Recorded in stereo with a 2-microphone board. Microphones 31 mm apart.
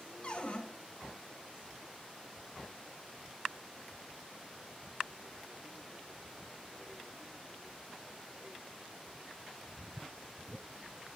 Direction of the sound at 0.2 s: 50° left (ahead or behind).